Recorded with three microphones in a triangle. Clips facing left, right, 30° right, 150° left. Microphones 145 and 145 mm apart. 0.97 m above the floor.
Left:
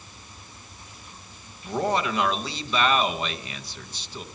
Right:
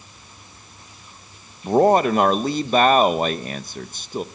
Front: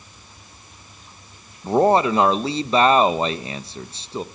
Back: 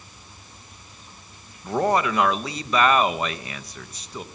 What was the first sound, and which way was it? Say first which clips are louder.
A man speaking: right 10 dB, front 6 dB; 80° right.